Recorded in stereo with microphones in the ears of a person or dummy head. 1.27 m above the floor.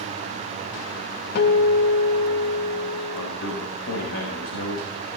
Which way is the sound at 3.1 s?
75° left (ahead or behind).